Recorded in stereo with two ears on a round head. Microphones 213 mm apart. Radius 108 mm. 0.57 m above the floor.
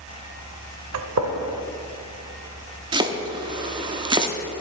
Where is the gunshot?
70° right (ahead or behind), 0.8 m.